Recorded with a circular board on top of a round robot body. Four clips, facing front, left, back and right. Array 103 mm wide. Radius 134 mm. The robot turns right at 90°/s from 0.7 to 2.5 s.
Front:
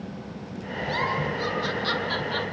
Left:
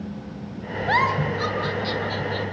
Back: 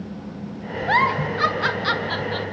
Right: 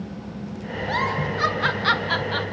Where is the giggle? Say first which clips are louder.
Left 4 dB, back 8 dB; 145° left, 4 m; by 2.5 s 65° right, 4 m.